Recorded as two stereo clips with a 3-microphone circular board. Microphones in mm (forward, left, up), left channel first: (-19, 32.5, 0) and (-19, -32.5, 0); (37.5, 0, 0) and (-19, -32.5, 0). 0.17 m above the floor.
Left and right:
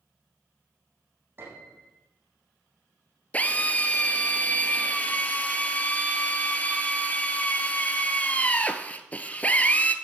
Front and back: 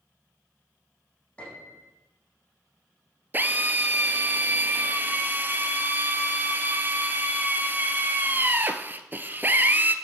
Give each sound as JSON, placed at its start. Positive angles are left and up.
{"t": 1.4, "sound": "a piano", "azimuth_deg": -40, "distance_m": 9.0}
{"t": 3.3, "sound": "a drill", "azimuth_deg": 155, "distance_m": 1.4}